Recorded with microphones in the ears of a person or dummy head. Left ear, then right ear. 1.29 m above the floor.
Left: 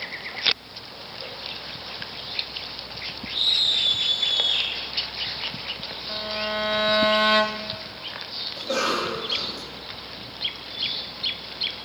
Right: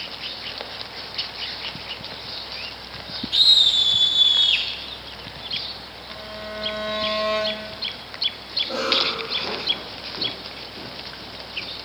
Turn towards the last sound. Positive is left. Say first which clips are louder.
# right 3 dB
turn(degrees=80)